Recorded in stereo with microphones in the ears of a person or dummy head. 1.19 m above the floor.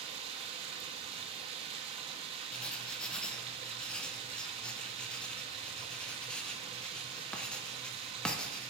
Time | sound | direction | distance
0.0 | running water | 35° right (ahead or behind) | 0.7 m
2.5 | writing | 5° left (ahead or behind) | 0.6 m